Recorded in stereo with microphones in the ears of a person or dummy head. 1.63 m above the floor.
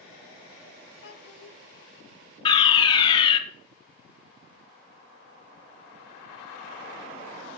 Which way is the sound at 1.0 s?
65° left (ahead or behind).